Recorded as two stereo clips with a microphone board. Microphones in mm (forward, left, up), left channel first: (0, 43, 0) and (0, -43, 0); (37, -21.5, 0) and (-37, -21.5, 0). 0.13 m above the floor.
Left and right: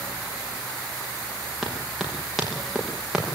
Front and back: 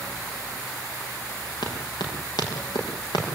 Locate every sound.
1.6 s running footsteps: straight ahead, 7.5 m; by 3.2 s 5° right, 9 m